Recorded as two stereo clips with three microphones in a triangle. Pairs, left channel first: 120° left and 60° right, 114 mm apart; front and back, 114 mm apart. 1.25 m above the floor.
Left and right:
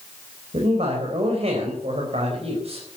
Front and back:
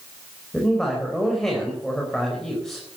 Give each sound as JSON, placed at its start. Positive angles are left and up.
{"t": 0.5, "sound": "a man speaking", "azimuth_deg": -85, "distance_m": 5.0}